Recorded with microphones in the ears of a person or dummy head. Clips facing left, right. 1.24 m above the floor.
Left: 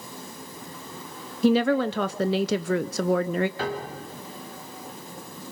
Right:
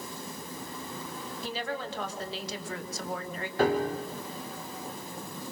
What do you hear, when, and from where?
1.4 s a woman speaking: 45° left (ahead or behind), 0.5 m
3.6 s a piano: 30° right (ahead or behind), 2.5 m